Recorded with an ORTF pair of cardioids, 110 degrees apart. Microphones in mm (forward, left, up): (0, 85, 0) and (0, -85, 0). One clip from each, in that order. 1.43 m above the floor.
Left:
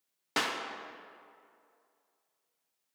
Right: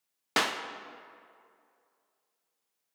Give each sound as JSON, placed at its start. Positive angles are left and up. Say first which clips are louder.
{"t": 0.4, "sound": "a clap", "louder": "right 3 dB", "azimuth_deg": -25, "distance_m": 0.7}